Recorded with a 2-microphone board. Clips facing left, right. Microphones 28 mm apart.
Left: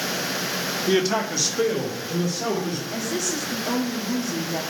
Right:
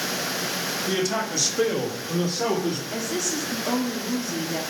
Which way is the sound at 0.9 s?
30° left (ahead or behind).